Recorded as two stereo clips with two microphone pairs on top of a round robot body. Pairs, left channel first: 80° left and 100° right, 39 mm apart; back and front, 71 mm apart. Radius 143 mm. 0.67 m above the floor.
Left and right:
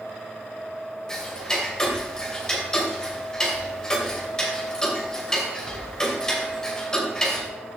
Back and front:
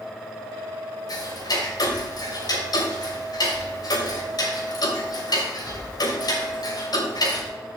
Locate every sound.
1.1 s ticking: 155° left, 2.5 m